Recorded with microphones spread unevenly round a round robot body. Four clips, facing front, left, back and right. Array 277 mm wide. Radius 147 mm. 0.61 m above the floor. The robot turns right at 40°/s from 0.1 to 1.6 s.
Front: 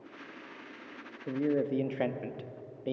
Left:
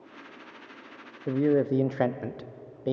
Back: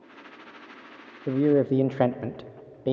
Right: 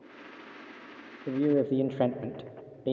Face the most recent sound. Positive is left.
turn(degrees=-170)